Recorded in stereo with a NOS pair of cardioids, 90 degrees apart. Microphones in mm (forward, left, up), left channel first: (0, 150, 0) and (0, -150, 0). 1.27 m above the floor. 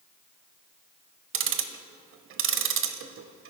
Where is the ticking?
45° right, 0.6 m.